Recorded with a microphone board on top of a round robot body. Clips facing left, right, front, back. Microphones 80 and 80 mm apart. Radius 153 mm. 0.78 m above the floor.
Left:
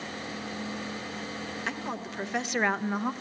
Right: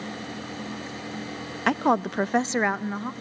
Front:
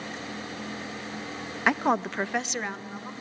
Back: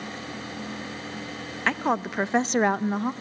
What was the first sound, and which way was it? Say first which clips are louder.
A woman speaking: right 16 dB, front 1 dB; 75° right.